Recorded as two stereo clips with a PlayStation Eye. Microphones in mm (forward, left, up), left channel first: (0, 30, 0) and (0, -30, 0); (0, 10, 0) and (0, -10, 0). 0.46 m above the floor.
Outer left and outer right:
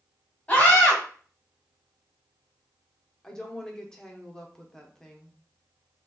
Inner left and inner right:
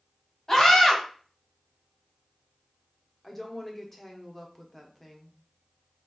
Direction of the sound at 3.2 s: 10° left (ahead or behind).